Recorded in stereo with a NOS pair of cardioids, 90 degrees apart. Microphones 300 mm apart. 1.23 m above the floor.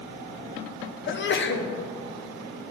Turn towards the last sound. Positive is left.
turn(degrees=40)